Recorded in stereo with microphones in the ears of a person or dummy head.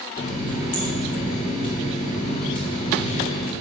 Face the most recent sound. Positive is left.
turn(degrees=30)  # may be behind; listen again after turning